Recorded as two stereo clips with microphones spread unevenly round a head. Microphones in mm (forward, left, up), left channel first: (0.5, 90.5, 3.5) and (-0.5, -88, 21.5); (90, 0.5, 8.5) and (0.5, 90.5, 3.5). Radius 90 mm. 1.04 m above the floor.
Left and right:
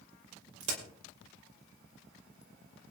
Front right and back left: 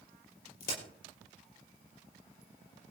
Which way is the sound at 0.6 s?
70° right.